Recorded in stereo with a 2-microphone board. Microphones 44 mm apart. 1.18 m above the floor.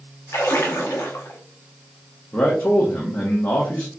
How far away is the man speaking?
About 0.9 m.